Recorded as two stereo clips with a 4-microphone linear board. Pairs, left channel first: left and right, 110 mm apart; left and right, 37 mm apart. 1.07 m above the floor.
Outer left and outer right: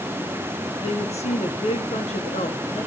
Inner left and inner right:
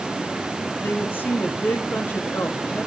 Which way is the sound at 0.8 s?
70° left (ahead or behind).